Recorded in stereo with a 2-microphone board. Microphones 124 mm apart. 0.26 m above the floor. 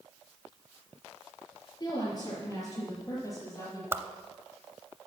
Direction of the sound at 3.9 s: 20° right (ahead or behind).